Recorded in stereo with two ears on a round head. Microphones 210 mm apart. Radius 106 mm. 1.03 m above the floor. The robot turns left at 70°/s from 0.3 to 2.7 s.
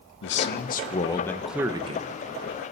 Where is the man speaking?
80° left, 0.8 m; by 2.1 s 45° right, 0.8 m.